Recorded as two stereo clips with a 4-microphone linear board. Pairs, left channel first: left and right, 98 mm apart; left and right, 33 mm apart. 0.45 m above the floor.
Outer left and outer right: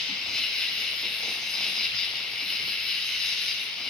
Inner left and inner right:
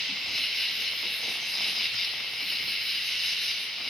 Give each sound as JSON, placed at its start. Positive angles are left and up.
{"t": 0.0, "sound": "an insect", "side_deg": 5, "distance_m": 1.9}